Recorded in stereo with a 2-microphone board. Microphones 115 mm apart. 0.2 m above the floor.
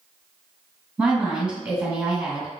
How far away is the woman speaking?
About 1.8 m.